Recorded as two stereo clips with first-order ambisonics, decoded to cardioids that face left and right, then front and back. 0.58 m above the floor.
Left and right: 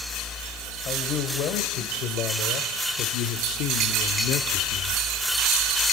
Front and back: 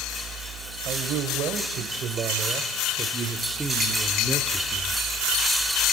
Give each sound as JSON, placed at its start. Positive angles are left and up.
{"t": 0.8, "sound": "a man speaking", "azimuth_deg": 135, "distance_m": 2.5}